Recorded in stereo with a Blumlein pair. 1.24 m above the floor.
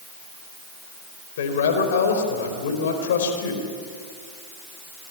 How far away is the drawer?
No drawer in this recording.